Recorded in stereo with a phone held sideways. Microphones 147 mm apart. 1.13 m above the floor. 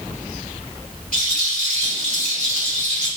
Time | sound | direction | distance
1.1 | a rattle | 55° right (ahead or behind) | 1.6 m